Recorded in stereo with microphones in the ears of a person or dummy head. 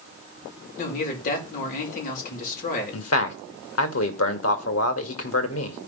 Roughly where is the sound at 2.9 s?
Left.